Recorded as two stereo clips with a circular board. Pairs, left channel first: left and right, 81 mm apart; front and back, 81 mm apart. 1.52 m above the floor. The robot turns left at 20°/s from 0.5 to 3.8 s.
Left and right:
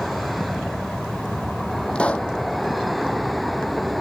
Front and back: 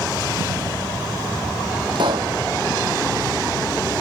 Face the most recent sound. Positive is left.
turn(degrees=130)